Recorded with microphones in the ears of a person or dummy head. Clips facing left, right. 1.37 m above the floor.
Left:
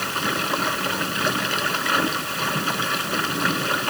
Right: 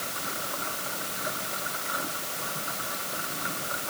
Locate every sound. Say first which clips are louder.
0.0 s running water: left 10 dB; 85° left